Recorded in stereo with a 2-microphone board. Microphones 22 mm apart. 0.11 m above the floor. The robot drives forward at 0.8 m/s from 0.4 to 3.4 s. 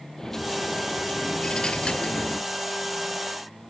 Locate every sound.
0.2 s a dropped coin: 25° left (ahead or behind), 1.8 m; by 2.5 s 45° left (ahead or behind), 1.0 m